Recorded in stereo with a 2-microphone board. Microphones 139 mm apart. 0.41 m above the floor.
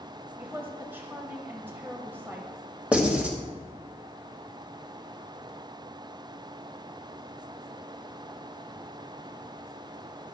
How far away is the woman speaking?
About 1.5 m.